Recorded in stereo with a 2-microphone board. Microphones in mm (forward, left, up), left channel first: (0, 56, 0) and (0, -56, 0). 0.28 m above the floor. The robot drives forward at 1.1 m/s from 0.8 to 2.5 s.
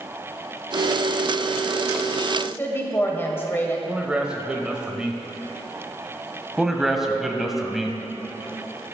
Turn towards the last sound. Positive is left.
turn(degrees=-5)  # may be behind; listen again after turning